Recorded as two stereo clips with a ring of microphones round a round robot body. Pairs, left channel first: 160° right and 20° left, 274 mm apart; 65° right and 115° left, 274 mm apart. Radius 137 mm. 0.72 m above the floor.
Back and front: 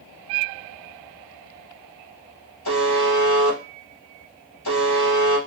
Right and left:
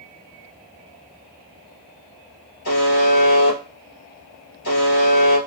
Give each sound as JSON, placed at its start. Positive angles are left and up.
{"t": 2.6, "sound": "a buzzer", "azimuth_deg": -125, "distance_m": 2.5}